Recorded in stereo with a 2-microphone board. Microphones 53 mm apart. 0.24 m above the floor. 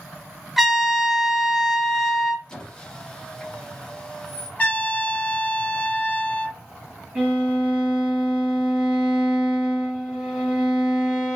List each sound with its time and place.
0.6 s a trumpet: 5° right (ahead or behind), 0.6 m
2.5 s a squeak: 15° left (ahead or behind), 1.0 m
4.6 s a trumpet: 25° left (ahead or behind), 0.7 m
7.2 s a violin: 25° right (ahead or behind), 1.3 m